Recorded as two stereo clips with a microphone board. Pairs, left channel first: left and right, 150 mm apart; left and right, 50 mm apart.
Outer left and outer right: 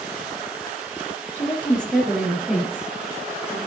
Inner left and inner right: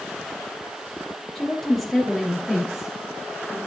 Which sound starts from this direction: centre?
A woman speaking, at 1.4 s.